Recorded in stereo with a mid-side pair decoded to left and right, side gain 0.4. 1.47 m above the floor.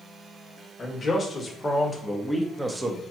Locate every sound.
0.8 s a man speaking: 45° left, 1.5 m; by 3.0 s 30° right, 0.8 m